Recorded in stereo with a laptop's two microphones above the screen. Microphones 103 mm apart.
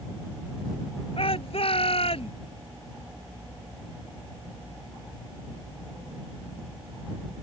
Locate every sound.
1.2 s a shout: 65° left (ahead or behind)